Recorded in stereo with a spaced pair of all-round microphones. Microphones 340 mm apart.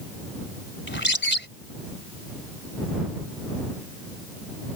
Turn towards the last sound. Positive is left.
turn(degrees=30)  # may be behind; listen again after turning